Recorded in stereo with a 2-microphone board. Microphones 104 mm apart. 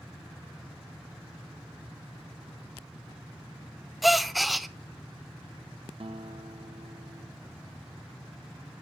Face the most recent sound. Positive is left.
turn(degrees=-60)  # may be behind; listen again after turning